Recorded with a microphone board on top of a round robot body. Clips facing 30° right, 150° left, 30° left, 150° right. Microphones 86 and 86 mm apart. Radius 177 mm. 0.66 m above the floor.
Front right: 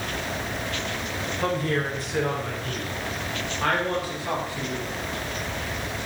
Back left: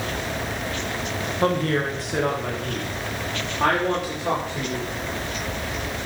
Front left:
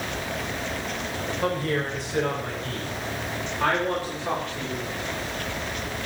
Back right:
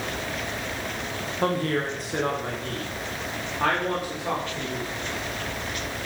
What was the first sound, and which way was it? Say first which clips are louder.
A woman speaking: back left 4 dB, back right 2 dB; straight behind.